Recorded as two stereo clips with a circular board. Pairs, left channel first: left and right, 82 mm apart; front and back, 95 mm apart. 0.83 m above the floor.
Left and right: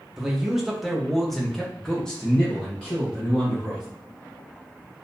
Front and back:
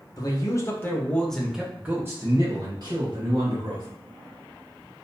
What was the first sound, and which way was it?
A man speaking, 10° right.